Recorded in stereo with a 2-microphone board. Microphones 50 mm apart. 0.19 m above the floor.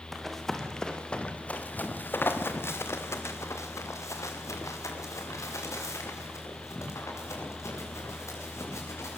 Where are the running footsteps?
Centre (ahead or behind), 3.5 m; by 9.2 s 70° left (ahead or behind), 9 m.